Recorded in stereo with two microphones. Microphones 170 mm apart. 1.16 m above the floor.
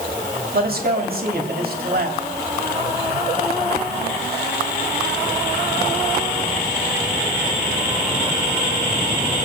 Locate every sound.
0.5 s a man speaking: 60° right (ahead or behind), 2.5 m